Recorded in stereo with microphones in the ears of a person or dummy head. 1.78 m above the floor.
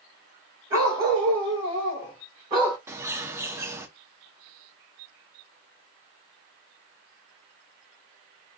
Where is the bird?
10° right (ahead or behind), 0.7 m.